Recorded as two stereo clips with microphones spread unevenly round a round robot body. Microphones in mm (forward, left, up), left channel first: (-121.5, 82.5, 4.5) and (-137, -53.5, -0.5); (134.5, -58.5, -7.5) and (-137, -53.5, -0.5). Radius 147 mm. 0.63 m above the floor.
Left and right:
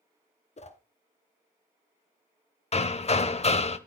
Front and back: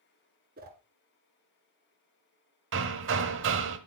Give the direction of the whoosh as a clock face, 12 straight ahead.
8 o'clock.